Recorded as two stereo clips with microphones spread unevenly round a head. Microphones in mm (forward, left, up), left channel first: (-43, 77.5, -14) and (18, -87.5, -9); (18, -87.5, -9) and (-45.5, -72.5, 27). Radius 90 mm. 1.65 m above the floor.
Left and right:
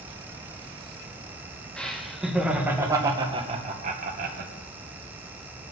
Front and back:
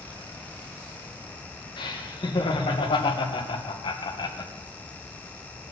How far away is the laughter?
About 1.8 m.